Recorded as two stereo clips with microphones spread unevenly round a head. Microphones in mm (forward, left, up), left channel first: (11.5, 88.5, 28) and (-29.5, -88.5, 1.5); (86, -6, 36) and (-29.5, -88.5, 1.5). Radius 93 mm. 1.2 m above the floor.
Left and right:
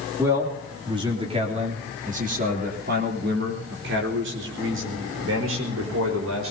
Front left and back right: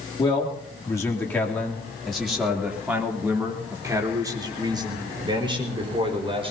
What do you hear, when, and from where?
0.2 s a man speaking: 25° right, 3 m; by 6.5 s 90° right, 5 m